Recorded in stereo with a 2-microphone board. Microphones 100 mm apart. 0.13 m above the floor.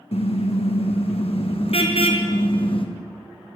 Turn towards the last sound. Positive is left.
turn(degrees=65)  # may be behind; listen again after turning